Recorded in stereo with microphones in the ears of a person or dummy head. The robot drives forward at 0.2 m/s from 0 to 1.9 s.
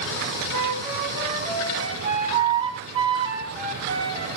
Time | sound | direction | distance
0.5 | a flute | 35° right (ahead or behind) | 2.5 m